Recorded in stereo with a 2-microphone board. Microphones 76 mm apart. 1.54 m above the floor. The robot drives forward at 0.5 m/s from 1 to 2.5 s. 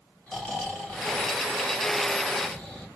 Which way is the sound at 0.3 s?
20° left (ahead or behind).